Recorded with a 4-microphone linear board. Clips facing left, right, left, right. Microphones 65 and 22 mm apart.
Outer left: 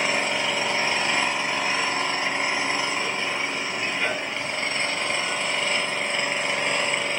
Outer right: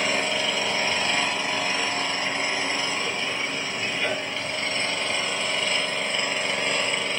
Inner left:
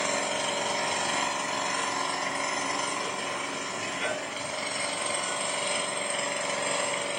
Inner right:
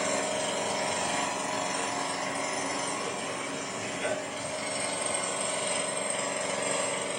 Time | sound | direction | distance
0.0 | an engine running | 30° left (ahead or behind) | 2.5 m